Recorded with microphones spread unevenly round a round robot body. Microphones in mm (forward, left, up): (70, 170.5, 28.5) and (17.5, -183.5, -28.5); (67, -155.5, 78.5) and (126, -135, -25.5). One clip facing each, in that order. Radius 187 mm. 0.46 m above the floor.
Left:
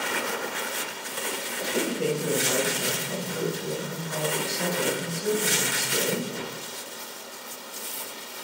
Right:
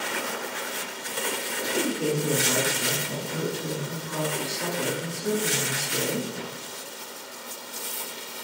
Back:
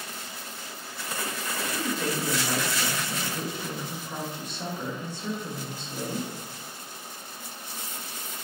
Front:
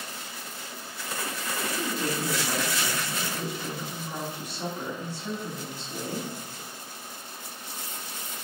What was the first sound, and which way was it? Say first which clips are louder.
A woman speaking: even, back 1 dB; 115° left.